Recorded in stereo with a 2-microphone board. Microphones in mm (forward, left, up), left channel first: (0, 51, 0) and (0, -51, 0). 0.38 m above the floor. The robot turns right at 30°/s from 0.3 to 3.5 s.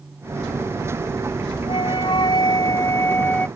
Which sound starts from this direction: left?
A flute, at 1.7 s.